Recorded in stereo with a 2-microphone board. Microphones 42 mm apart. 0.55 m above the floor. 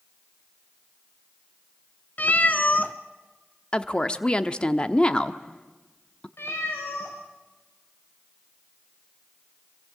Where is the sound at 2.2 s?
45° left (ahead or behind), 1.1 m.